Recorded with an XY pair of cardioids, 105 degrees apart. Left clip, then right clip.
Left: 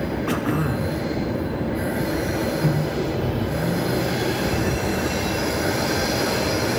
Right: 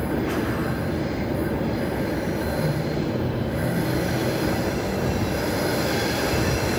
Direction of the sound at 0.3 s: 60° left.